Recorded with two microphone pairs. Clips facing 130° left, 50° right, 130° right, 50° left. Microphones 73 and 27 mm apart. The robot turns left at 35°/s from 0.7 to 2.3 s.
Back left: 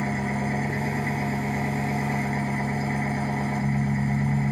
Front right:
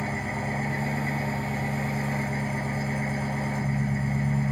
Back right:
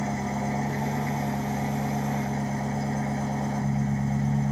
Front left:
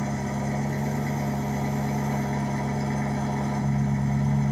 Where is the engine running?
155° left, 1.0 m; by 4.5 s 100° left, 1.0 m.